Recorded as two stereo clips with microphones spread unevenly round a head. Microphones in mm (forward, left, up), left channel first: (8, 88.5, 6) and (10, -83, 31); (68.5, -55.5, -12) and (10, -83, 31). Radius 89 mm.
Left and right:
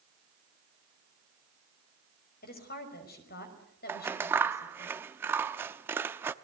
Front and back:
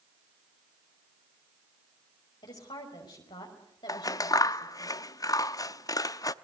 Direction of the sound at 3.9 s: 30° right.